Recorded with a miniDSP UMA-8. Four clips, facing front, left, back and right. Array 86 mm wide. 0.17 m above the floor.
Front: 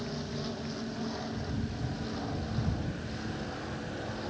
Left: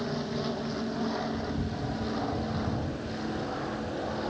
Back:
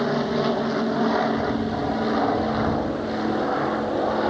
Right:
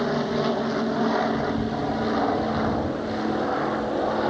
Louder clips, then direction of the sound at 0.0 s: Right 9 dB, back 15 dB; 145° right.